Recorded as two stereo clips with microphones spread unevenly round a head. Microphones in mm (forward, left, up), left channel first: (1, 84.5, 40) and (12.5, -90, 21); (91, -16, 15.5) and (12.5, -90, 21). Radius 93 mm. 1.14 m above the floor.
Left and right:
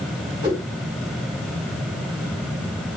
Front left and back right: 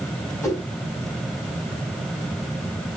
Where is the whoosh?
20° right, 5 m.